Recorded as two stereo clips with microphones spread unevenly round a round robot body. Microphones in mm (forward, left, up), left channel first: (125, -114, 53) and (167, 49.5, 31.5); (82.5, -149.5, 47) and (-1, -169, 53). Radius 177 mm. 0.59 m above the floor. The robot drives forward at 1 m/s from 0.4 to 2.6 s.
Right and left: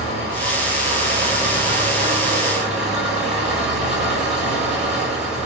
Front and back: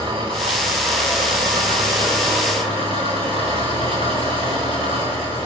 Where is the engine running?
155° right, 4 m; by 5.5 s 165° right, 6 m.